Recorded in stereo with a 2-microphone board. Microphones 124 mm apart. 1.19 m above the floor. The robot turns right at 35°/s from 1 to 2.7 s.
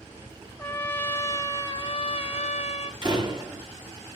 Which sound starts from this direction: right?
A door slam, at 3.0 s.